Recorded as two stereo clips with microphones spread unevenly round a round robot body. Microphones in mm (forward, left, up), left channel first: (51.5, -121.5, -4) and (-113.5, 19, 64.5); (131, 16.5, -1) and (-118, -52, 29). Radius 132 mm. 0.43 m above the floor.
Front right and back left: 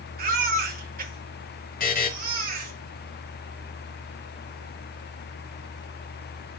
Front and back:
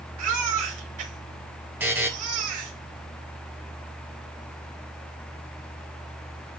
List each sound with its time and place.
0.2 s a baby crying: 170° right, 5.5 m
1.8 s a buzzer: 80° right, 2 m